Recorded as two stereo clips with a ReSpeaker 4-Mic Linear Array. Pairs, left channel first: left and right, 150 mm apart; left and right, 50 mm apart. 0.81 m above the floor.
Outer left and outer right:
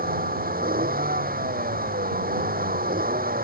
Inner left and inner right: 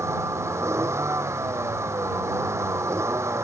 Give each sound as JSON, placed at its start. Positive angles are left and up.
{"t": 0.0, "sound": "a vehicle", "side_deg": -90}